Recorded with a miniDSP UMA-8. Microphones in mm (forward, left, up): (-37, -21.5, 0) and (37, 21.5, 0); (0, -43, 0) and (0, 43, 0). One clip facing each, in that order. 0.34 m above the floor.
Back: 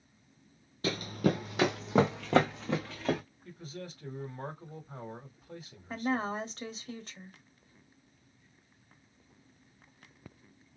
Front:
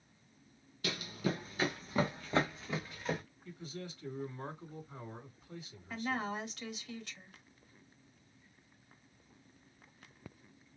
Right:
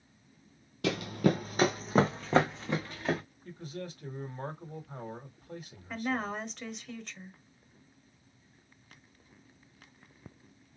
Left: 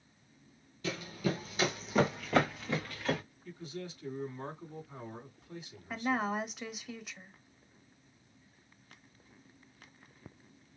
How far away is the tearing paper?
No tearing paper in this recording.